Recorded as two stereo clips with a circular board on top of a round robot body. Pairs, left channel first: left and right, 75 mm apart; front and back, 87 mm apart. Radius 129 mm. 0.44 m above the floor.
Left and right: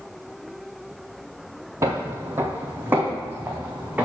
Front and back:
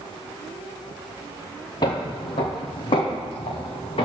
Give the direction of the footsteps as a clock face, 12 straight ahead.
1 o'clock.